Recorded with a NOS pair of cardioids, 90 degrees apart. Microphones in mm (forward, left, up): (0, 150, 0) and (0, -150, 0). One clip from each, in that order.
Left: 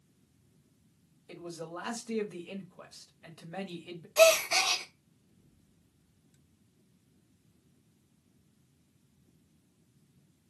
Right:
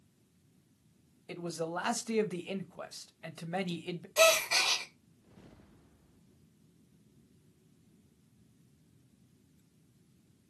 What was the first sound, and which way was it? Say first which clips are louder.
A man speaking: right 5 dB; 30° right.